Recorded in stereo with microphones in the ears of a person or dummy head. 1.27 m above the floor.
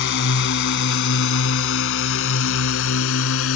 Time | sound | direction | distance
0.0 | a drone | 60° left (ahead or behind) | ?